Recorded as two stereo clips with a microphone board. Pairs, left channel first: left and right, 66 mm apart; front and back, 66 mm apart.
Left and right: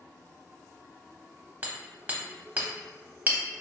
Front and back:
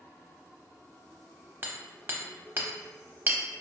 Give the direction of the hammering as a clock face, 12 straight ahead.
5 o'clock.